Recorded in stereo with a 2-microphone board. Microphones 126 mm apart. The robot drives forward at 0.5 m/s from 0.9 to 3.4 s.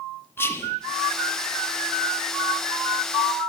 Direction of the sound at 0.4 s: 20° left (ahead or behind).